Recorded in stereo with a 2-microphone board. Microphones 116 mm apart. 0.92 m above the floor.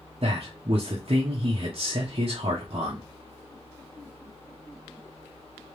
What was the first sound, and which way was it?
A man speaking, 50° right (ahead or behind).